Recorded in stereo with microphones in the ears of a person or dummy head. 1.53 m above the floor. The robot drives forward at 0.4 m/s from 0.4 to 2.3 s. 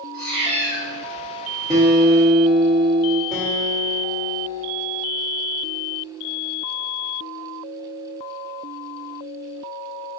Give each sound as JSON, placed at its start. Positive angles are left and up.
{"t": 0.1, "sound": "a cat meowing", "side_deg": -35, "distance_m": 1.3}
{"t": 1.7, "sound": "a guitar", "side_deg": -25, "distance_m": 1.1}
{"t": 3.3, "sound": "a guitar", "side_deg": -35, "distance_m": 1.5}